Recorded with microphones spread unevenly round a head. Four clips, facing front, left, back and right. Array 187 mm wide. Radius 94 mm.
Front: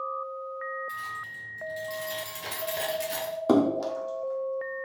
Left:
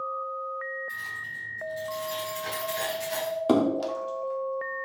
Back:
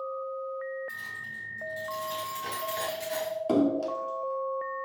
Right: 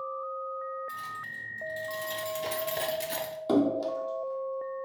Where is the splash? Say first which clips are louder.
Left 1 dB, front 3 dB; 30° left, 0.7 m.